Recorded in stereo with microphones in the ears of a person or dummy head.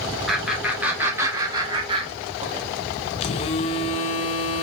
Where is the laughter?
Centre (ahead or behind), 1.9 m; by 2.6 s 40° right (ahead or behind), 1.6 m.